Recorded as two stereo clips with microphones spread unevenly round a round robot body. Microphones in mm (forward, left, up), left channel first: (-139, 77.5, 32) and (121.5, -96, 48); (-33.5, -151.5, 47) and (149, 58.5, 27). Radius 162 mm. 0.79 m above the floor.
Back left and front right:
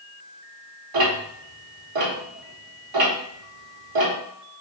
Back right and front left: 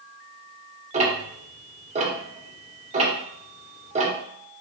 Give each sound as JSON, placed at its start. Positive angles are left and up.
{"t": 0.9, "sound": "ticking", "azimuth_deg": -15, "distance_m": 1.6}